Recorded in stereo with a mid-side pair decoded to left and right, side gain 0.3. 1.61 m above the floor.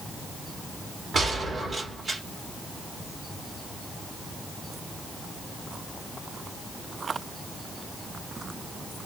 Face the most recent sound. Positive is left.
turn(degrees=-60)